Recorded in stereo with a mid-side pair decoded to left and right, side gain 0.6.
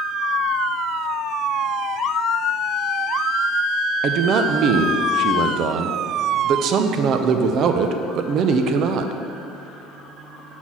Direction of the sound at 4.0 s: 55° right.